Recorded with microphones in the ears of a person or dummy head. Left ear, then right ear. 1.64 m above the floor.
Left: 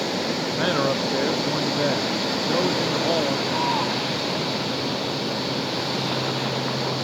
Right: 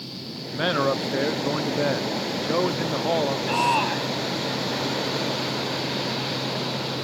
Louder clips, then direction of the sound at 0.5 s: Right 1 dB; 20° right (ahead or behind).